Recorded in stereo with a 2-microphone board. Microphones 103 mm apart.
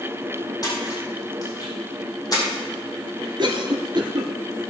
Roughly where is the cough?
Right.